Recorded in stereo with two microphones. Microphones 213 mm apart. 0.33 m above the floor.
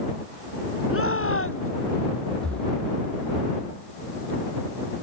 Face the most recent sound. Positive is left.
turn(degrees=5)  # may be behind; listen again after turning